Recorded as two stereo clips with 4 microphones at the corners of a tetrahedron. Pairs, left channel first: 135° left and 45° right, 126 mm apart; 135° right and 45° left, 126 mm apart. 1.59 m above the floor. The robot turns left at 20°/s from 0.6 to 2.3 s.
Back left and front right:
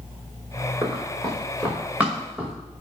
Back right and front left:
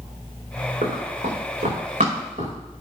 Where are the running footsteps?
55° left, 7.5 m; by 2.5 s 30° left, 9 m.